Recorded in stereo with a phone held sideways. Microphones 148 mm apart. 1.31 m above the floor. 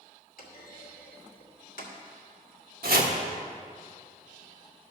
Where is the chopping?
80° right, 1.3 m.